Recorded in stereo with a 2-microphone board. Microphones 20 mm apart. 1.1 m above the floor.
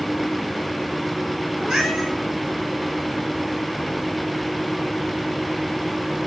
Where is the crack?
I don't hear a crack.